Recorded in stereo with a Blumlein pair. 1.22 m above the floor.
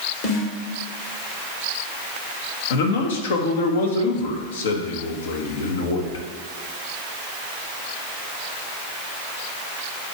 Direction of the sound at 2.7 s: 60° left.